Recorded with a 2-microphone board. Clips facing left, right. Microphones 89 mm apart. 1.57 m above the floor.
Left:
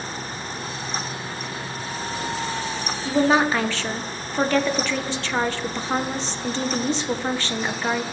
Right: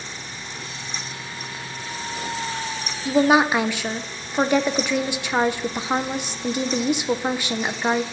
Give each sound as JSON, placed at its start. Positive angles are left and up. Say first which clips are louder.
{"t": 3.0, "sound": "a woman speaking", "louder": "right 2 dB", "side_deg": -15, "distance_m": 1.1}